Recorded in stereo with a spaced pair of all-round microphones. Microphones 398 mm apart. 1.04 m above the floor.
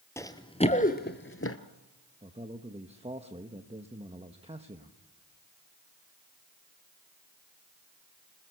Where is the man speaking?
15° right (ahead or behind), 1.1 m.